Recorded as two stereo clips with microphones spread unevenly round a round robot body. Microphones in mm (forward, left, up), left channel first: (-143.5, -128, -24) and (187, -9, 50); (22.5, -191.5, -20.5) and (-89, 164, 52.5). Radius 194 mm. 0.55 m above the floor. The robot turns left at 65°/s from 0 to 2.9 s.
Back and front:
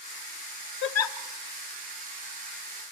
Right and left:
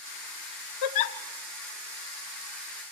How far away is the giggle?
About 1.2 m.